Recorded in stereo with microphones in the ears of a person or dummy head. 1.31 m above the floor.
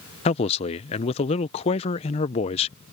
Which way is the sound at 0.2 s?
30° left (ahead or behind).